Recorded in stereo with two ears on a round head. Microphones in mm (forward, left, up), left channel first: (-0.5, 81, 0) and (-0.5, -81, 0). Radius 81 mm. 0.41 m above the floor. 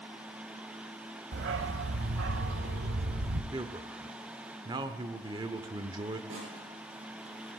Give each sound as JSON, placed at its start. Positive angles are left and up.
{"t": 1.3, "sound": "a dog barking", "side_deg": -60, "distance_m": 0.7}
{"t": 3.5, "sound": "a man speaking", "side_deg": -25, "distance_m": 0.8}
{"t": 6.3, "sound": "a snare drum", "side_deg": -75, "distance_m": 9.0}